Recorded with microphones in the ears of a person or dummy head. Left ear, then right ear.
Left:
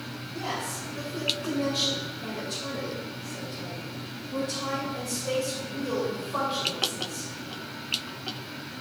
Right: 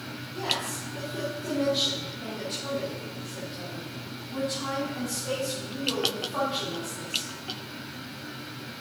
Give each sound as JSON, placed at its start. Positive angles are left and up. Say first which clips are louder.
{"t": 0.3, "sound": "a woman speaking", "louder": "right 3 dB", "side_deg": -15, "distance_m": 4.5}